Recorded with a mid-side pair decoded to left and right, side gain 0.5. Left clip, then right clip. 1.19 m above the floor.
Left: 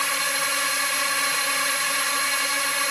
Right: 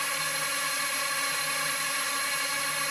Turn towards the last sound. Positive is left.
turn(degrees=40)